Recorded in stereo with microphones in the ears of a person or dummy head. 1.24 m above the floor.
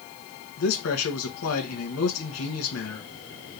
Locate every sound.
0.6 s a man speaking: 70° left (ahead or behind), 1.4 m